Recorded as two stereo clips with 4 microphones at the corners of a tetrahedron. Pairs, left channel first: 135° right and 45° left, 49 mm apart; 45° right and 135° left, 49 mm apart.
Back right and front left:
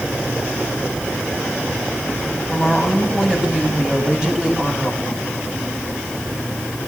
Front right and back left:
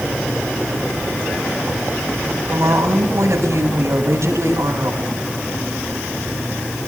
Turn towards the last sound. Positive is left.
turn(degrees=120)